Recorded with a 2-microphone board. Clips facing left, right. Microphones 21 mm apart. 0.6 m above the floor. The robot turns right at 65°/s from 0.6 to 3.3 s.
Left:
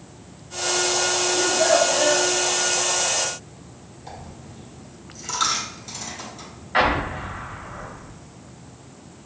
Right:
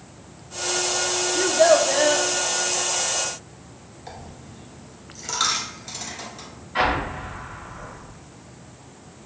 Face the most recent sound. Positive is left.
turn(degrees=60)  # may be behind; listen again after turning